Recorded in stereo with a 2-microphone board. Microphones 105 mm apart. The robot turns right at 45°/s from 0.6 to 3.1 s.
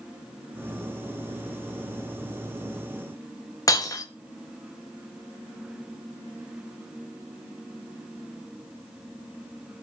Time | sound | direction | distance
3.7 | breaking glass | 35° left (ahead or behind) | 1.3 m